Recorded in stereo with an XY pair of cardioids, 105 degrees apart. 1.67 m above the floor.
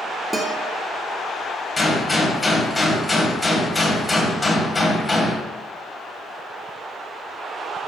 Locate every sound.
0.3 s a guitar: 15° right, 1.5 m
1.8 s a gunshot: 10° left, 2.0 m